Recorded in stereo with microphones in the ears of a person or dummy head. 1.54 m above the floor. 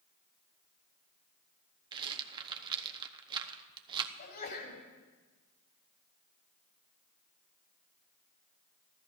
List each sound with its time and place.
1.9 s a rattle: 30° right (ahead or behind), 0.8 m
4.2 s a sneeze: 55° left (ahead or behind), 3.5 m